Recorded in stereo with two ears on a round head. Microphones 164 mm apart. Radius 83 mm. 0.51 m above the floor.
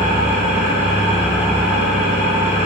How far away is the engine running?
About 1.4 m.